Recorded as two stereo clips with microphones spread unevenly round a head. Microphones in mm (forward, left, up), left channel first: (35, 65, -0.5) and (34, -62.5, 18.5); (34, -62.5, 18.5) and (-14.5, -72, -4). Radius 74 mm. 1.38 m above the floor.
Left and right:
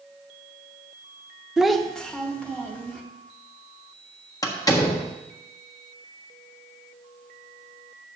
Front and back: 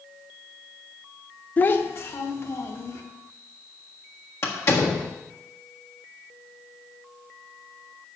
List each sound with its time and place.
1.6 s a child speaking: 10° right, 0.7 m; by 3.0 s 10° left, 2.5 m
4.4 s a door slam: 25° left, 1.5 m